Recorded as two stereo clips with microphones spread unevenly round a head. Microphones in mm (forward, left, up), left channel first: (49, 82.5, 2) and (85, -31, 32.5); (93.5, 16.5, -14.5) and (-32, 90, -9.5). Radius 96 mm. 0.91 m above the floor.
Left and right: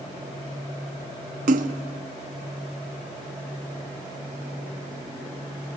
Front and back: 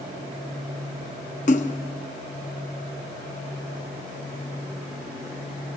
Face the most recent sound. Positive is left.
turn(degrees=-85)